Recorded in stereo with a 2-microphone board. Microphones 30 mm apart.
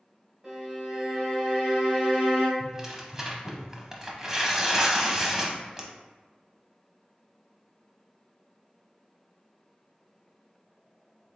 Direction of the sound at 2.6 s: 15° right (ahead or behind).